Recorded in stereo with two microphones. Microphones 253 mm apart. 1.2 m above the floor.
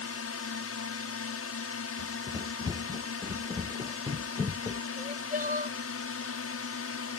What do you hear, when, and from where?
0.0 s a drone: 65° left (ahead or behind)
2.0 s running footsteps: 15° right (ahead or behind); by 4.8 s 10° right (ahead or behind)
5.0 s crying: 35° right (ahead or behind)